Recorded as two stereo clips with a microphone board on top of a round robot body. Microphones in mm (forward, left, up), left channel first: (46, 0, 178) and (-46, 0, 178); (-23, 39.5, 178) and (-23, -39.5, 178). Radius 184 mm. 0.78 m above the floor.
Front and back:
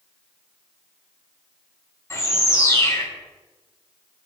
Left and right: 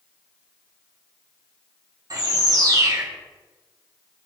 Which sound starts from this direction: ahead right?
A bird, at 2.1 s.